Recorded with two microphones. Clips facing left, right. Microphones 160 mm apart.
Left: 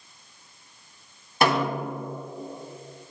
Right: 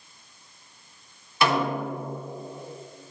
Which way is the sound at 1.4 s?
50° left (ahead or behind).